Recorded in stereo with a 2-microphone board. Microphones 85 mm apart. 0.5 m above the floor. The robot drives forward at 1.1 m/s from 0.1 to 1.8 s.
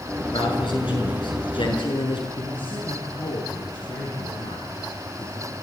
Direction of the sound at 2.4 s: 80° left.